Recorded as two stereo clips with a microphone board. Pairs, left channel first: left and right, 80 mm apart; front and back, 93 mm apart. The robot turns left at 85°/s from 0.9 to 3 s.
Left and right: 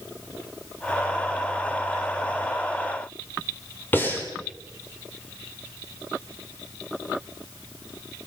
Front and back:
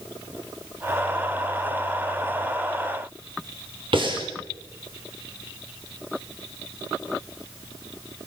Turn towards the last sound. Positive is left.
turn(degrees=155)